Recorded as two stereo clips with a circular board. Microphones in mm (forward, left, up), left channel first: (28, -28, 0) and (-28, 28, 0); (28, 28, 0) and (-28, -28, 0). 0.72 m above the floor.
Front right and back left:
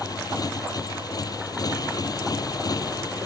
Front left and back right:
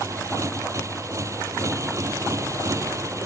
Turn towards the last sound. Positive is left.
turn(degrees=-85)